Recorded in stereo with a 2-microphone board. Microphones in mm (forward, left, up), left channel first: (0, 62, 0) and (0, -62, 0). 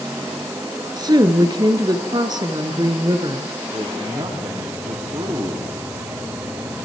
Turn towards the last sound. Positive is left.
turn(degrees=-40)  # may be behind; listen again after turning